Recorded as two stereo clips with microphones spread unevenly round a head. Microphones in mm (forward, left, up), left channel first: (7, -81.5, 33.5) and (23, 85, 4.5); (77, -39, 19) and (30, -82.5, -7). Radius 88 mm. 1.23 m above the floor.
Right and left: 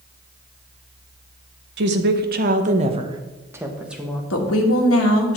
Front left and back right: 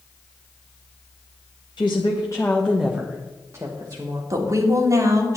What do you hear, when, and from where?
1.8 s a woman speaking: 100° left, 1.2 m; by 4.2 s 175° left, 1.5 m
4.3 s a woman speaking: 105° right, 1.9 m